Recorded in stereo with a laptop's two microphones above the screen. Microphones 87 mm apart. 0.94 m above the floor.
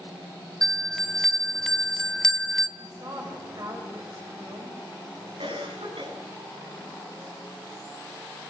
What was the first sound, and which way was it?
A bell, 5° left (ahead or behind).